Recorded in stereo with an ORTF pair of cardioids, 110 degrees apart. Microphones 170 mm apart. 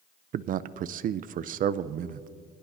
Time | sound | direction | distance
0.3 | a man speaking | 55° right | 0.6 m